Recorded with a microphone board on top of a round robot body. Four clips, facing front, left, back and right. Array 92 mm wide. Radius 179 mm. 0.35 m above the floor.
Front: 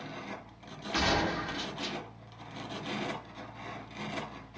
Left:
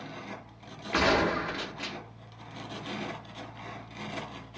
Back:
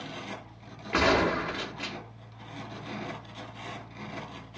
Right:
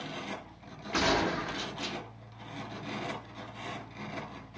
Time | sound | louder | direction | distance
0.9 | a gunshot | left 3 dB, back 6 dB | 140° left | 1.2 m